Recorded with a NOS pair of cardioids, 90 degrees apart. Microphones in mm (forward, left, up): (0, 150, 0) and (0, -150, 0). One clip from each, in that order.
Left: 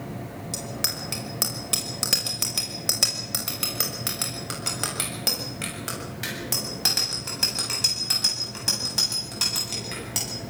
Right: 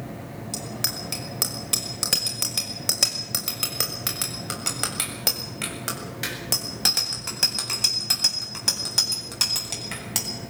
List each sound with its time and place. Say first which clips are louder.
0.5 s a bicycle bell: even; straight ahead, 5.5 m; by 10.3 s 35° right, 9.5 m